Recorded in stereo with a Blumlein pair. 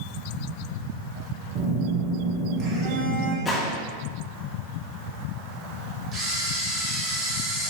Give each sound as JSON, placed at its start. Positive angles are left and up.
{"t": 1.6, "sound": "a phone buzzing", "azimuth_deg": -40, "distance_m": 1.7}
{"t": 3.5, "sound": "a gunshot", "azimuth_deg": 15, "distance_m": 1.4}
{"t": 6.1, "sound": "a camera shutter", "azimuth_deg": -25, "distance_m": 2.0}